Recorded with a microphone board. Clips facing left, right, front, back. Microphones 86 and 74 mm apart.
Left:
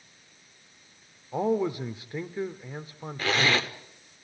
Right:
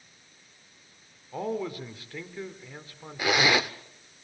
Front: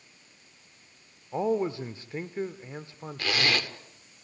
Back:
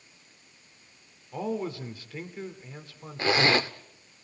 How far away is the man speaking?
About 1.1 m.